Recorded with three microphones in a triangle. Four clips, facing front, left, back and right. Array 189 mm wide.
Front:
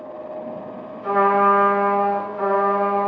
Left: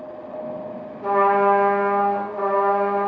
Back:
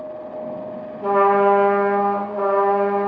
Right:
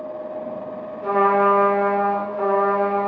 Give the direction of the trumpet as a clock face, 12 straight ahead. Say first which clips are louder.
Even, back 1 dB; 6 o'clock.